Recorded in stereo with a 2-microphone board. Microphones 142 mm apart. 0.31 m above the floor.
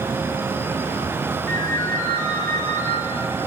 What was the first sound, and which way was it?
A ringtone, 15° left (ahead or behind).